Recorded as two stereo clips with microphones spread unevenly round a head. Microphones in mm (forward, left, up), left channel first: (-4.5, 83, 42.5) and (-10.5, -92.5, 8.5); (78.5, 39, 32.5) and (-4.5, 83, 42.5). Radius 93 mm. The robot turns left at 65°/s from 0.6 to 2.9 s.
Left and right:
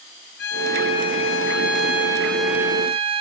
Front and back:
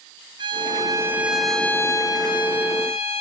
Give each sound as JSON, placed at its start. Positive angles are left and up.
{"t": 0.4, "sound": "a violin", "azimuth_deg": 115, "distance_m": 5.0}